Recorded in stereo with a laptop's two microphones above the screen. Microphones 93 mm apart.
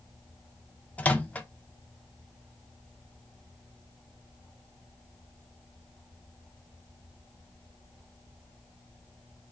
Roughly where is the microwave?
Centre.